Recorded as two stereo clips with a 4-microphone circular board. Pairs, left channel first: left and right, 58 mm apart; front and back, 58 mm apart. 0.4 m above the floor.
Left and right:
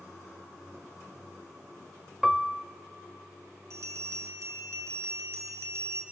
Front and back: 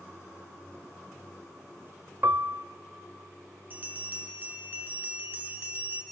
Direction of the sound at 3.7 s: 125° right.